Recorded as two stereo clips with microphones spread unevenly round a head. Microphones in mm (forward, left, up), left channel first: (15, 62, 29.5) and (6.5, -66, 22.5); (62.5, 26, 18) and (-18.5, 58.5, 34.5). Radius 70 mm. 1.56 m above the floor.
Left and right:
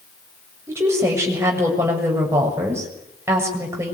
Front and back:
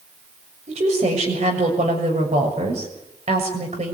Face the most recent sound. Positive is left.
turn(degrees=-165)